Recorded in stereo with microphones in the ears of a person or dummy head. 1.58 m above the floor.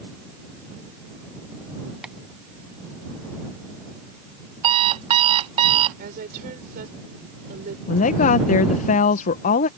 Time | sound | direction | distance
2.0 | tapping | 10° right (ahead or behind) | ?
4.6 | an alarm clock | 35° right (ahead or behind) | ?
6.0 | a woman speaking | 55° right (ahead or behind) | ?
7.9 | a woman speaking | 45° left (ahead or behind) | ?